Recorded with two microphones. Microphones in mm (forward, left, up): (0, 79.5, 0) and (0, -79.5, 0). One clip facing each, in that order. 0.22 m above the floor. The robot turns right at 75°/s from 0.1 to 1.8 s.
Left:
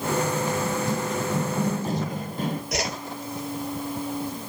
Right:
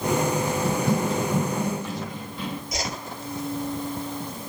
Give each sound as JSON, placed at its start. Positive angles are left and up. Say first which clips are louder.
{"t": 0.7, "sound": "running footsteps", "louder": "right 3 dB", "side_deg": -80, "distance_m": 0.6}
{"t": 2.7, "sound": "a whoosh", "louder": "left 3 dB", "side_deg": 70, "distance_m": 1.8}